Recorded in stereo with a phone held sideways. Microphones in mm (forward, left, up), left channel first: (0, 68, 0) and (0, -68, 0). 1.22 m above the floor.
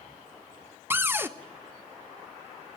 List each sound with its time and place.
0.9 s a cupboard door: 15° right (ahead or behind), 0.8 m